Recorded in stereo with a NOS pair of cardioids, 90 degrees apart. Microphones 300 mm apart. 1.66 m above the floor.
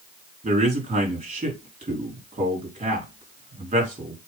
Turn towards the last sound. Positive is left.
turn(degrees=-25)